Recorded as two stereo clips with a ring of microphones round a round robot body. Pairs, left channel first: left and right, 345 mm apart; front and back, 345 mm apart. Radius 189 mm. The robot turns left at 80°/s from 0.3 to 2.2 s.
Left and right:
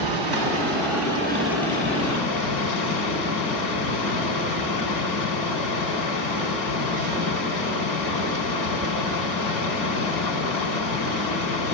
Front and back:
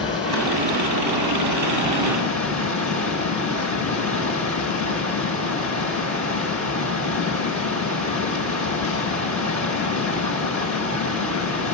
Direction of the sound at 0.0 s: 75° right.